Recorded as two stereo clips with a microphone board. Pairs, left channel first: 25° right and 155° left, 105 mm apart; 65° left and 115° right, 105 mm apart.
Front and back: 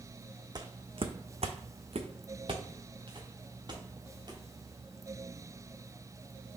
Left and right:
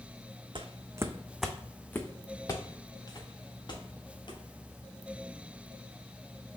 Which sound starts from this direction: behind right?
Footsteps, at 0.6 s.